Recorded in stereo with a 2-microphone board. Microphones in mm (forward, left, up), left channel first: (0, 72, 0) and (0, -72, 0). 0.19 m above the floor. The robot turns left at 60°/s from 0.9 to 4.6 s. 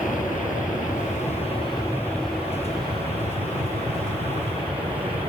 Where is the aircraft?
85° left; by 5.3 s 140° right.